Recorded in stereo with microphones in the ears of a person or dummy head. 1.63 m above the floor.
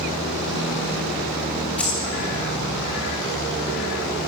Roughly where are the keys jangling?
Centre.